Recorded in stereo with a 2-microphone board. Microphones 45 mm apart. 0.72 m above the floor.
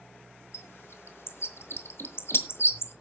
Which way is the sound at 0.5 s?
65° left (ahead or behind).